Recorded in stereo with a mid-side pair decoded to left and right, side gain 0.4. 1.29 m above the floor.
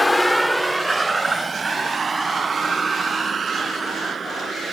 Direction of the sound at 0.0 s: 20° left.